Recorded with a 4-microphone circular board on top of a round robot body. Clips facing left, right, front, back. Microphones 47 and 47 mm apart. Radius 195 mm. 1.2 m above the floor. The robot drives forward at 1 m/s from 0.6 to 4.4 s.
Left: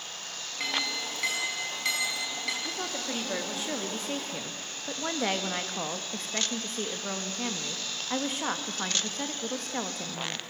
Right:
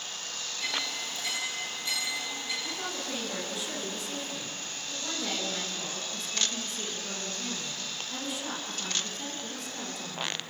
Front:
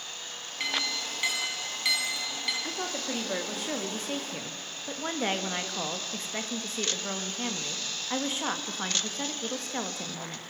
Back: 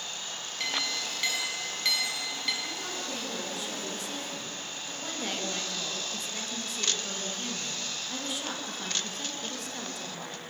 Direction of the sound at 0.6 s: 70° left.